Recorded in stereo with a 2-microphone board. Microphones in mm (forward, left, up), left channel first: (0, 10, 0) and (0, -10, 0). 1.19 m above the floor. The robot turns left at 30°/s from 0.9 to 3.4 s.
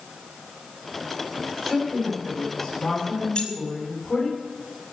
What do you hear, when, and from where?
1.6 s a woman speaking: 150° right, 5.5 m; by 4.3 s 160° left, 5.5 m
3.4 s keys jangling: 50° left (ahead or behind), 4 m